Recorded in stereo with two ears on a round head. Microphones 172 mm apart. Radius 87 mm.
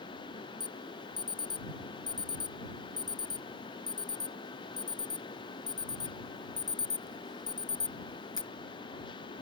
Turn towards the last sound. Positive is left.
turn(degrees=25)  # may be behind; listen again after turning